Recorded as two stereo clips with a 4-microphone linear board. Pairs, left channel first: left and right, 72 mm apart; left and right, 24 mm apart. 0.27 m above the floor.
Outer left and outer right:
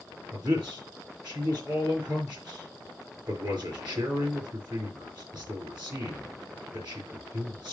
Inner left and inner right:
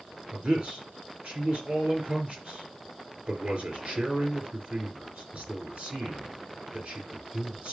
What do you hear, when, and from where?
0.3 s a man speaking: 70° right (ahead or behind), 4.5 m